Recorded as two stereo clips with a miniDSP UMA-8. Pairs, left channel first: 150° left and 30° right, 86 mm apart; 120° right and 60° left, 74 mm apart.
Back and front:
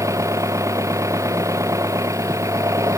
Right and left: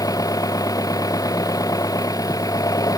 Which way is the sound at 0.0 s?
85° right.